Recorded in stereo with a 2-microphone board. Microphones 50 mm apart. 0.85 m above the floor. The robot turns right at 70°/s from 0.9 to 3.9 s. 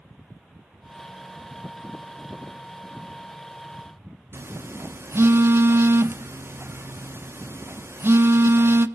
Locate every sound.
4.3 s a phone buzzing: 55° right (ahead or behind), 0.7 m